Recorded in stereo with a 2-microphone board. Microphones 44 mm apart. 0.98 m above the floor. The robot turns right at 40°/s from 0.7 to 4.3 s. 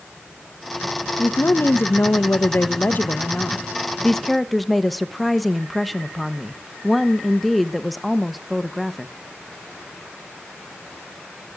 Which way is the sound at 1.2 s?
50° left.